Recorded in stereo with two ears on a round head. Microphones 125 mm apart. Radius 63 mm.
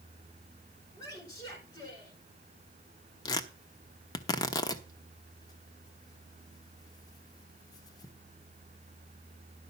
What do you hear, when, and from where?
1.0 s a woman speaking: 30° left (ahead or behind), 6.5 m
3.2 s tearing paper: 25° left (ahead or behind), 0.9 m